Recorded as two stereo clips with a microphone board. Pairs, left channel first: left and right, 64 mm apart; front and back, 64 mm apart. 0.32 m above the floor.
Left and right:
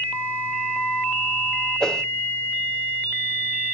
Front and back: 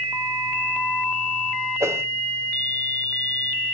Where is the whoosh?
165° left, 1.1 m.